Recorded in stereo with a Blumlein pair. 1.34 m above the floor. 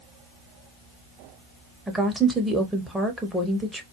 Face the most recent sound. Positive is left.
turn(degrees=-5)